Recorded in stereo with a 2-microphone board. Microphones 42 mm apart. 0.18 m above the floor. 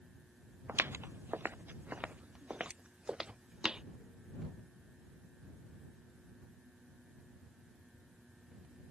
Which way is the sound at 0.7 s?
65° right (ahead or behind).